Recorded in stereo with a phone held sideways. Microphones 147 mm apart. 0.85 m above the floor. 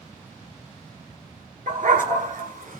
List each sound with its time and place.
1.7 s a dog barking: 70° right (ahead or behind), 3 m